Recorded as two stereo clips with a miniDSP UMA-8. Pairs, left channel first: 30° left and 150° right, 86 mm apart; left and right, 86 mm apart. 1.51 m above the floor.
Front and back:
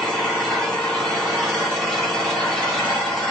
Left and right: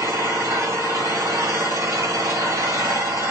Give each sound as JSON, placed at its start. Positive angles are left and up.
{"t": 0.0, "sound": "an engine running", "azimuth_deg": -45, "distance_m": 1.8}